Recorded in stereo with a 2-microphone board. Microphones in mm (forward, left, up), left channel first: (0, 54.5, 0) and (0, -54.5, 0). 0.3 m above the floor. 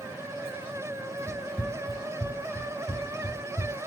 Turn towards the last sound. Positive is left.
turn(degrees=65)  # may be behind; listen again after turning